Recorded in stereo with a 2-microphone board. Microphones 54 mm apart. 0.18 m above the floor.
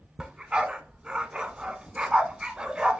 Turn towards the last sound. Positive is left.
turn(degrees=-20)  # may be behind; listen again after turning